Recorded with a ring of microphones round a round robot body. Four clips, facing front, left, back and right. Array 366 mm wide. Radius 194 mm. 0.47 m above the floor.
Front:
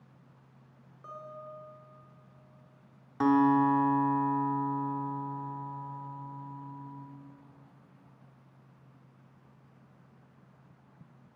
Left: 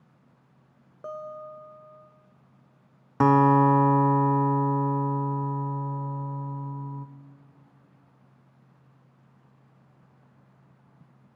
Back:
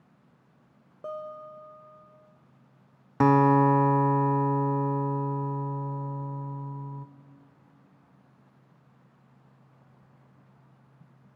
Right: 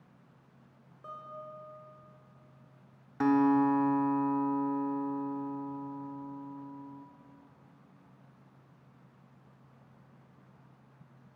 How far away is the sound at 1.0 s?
About 1.4 m.